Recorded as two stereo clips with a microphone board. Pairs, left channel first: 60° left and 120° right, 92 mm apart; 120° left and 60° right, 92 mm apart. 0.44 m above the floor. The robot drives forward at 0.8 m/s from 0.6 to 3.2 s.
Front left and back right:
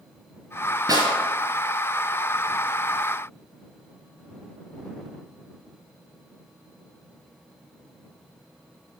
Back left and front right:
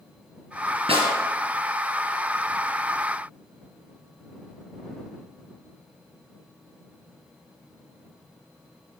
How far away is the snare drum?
About 3.5 m.